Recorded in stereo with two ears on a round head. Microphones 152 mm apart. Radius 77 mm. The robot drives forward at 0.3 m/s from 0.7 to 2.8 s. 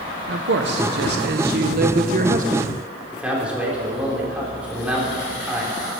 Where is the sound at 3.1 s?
5° right (ahead or behind), 3.5 m.